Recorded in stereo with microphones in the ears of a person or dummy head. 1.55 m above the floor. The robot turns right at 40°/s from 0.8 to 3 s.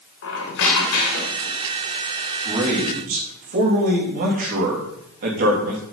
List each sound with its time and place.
0.2 s a squeak: 100° left, 3 m; by 1.6 s 130° left, 3 m
2.5 s a man speaking: 20° right (ahead or behind), 3.5 m; by 5.8 s 40° right (ahead or behind), 3.5 m